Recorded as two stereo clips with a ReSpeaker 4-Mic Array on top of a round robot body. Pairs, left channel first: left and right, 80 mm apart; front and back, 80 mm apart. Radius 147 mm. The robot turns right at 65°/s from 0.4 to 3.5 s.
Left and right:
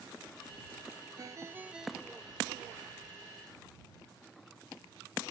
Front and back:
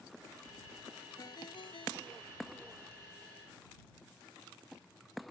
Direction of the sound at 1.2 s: 50° right.